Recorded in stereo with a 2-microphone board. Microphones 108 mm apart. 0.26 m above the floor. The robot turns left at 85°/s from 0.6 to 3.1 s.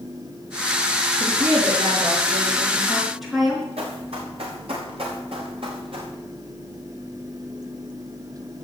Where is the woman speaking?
20° right, 4.5 m; by 3.7 s straight behind, 4.5 m.